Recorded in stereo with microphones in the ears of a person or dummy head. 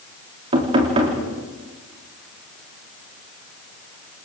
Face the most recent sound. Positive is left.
turn(degrees=-35)  # may be behind; listen again after turning